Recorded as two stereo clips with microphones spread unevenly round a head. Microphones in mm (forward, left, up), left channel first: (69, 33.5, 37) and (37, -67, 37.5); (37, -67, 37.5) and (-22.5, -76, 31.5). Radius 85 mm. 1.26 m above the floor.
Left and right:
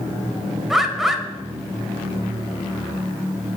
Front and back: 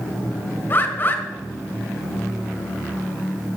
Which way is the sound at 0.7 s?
25° right.